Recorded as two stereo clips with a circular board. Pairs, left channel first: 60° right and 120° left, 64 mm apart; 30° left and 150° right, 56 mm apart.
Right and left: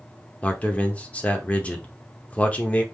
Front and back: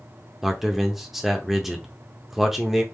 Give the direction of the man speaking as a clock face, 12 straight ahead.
3 o'clock.